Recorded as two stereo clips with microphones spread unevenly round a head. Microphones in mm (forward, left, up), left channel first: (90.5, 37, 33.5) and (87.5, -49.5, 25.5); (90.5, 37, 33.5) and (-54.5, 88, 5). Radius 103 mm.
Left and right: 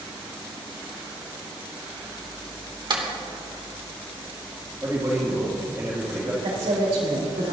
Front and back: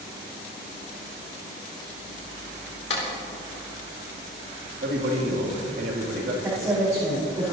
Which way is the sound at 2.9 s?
60° right.